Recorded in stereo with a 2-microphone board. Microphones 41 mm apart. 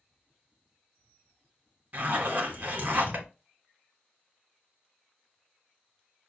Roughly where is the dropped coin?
No dropped coin in this recording.